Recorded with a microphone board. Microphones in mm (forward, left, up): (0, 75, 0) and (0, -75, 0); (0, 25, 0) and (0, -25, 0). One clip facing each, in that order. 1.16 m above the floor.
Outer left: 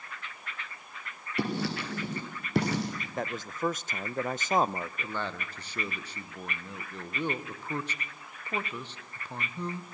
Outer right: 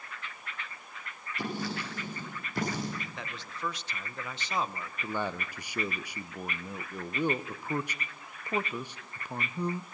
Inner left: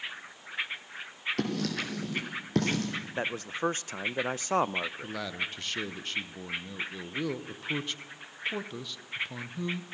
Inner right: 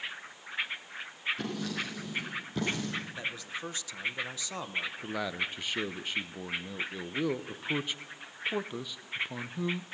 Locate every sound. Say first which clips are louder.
1.4 s writing: outer left 4 dB, inner left 4 dB; 70° left (ahead or behind), 5.5 m
3.2 s a man speaking: outer left 7 dB, inner left 5 dB; 45° left (ahead or behind), 0.6 m
5.0 s a man speaking: outer right 2 dB, inner right 1 dB; 10° right (ahead or behind), 0.8 m